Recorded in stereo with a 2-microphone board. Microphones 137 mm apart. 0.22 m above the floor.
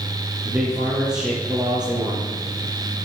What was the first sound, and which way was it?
A man speaking, 10° right (ahead or behind).